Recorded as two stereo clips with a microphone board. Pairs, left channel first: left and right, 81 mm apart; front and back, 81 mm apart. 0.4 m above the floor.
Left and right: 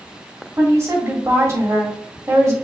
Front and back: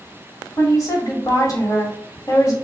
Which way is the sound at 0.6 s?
40° right.